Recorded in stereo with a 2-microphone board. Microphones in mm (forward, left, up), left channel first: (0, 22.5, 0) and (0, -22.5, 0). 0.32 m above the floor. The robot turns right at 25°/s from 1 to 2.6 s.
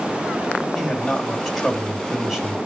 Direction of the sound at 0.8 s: Centre (ahead or behind).